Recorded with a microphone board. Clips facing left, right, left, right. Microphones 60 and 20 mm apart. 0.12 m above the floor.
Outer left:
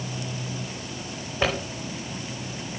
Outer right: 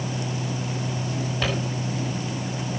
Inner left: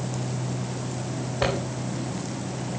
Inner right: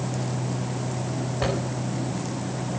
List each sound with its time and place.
1.4 s a zipper: 25° left (ahead or behind), 6.5 m